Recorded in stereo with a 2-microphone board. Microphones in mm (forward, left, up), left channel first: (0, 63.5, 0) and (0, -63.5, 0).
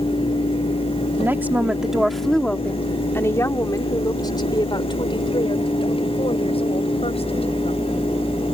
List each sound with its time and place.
1.2 s a woman speaking: 20° right (ahead or behind); by 7.9 s 55° left (ahead or behind)